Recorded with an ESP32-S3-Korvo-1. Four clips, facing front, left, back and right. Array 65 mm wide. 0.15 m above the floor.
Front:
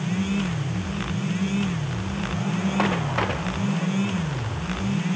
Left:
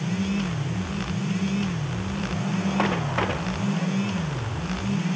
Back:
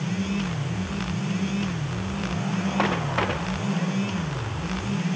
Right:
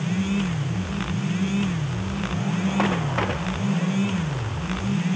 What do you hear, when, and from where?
Only background noise.